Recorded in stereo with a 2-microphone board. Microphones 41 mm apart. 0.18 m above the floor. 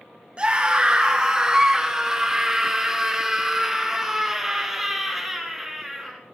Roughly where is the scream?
Right.